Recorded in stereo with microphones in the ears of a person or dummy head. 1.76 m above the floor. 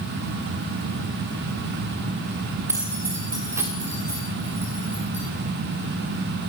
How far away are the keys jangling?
About 2.5 m.